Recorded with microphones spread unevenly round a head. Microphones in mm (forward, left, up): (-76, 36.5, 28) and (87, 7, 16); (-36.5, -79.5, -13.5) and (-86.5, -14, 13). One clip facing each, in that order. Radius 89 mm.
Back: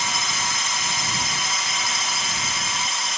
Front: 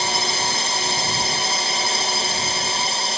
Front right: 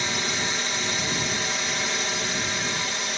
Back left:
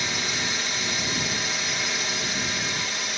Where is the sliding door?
I don't hear a sliding door.